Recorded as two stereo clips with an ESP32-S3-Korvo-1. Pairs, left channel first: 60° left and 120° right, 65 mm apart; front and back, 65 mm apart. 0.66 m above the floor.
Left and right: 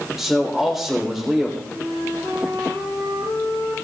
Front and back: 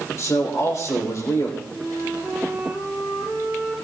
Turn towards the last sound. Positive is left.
turn(degrees=-105)